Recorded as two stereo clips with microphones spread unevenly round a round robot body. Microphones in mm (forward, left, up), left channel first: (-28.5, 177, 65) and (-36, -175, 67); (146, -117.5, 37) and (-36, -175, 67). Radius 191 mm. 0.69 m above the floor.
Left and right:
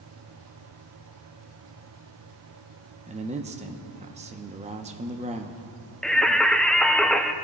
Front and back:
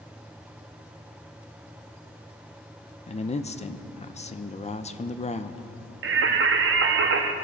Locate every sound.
3.1 s a man speaking: 25° right, 0.8 m
6.0 s singing: 175° left, 0.6 m